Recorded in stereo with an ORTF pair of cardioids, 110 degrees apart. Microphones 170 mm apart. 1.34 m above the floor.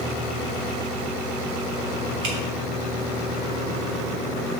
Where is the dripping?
70° right, 2 m.